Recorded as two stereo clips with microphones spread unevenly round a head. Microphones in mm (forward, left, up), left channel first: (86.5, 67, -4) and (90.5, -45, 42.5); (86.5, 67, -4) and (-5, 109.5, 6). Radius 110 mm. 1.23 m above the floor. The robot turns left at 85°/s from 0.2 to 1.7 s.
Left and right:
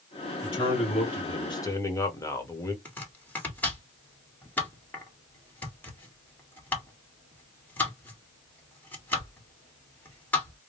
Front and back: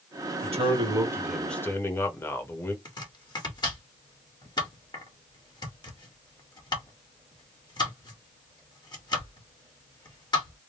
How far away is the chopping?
About 2 m.